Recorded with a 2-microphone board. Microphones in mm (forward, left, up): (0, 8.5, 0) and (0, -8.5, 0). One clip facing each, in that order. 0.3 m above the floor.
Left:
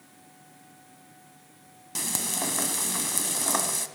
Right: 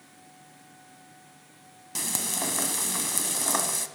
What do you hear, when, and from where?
1.9 s frying: centre (ahead or behind), 1.0 m